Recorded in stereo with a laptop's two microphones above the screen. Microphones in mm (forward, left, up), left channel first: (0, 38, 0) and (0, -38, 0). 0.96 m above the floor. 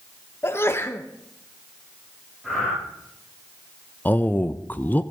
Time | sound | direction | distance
0.4 | a sneeze | 35° left (ahead or behind) | 0.9 m
2.4 | breathing | 5° right (ahead or behind) | 6.5 m
4.0 | a man speaking | 25° left (ahead or behind) | 0.6 m